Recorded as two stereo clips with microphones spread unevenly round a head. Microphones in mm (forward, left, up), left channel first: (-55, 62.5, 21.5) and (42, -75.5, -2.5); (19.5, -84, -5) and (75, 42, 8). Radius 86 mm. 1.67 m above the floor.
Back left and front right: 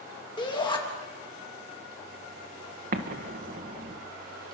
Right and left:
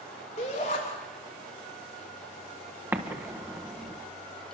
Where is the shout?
170° right, 3 m.